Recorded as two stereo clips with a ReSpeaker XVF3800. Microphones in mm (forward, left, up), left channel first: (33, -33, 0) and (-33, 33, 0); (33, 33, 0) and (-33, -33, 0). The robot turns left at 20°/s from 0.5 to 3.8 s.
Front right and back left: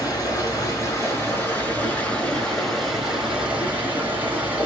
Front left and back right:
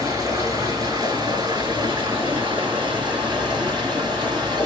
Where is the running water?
90° right, 2.5 m; by 4.7 s 155° right, 2.5 m.